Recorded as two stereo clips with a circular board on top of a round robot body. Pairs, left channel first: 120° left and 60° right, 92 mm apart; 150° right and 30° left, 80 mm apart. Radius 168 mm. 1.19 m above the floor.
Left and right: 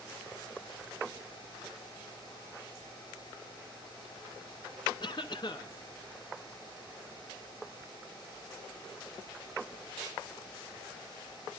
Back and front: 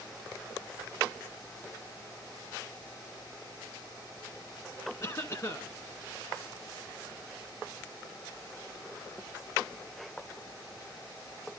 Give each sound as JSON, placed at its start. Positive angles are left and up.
{"t": 5.0, "sound": "a cough", "azimuth_deg": 160, "distance_m": 1.5}